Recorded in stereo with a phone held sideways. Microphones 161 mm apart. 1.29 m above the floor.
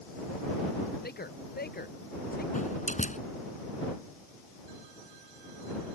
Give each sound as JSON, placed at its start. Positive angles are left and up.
{"t": 1.0, "sound": "a man speaking", "side_deg": 75}
{"t": 2.5, "sound": "a door slam", "side_deg": 50}